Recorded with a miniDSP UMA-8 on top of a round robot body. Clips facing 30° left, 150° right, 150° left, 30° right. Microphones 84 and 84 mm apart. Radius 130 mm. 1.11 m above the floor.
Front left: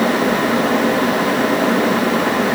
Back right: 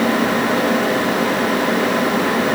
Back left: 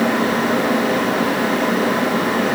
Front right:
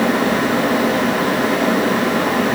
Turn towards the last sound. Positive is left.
No sound to turn to.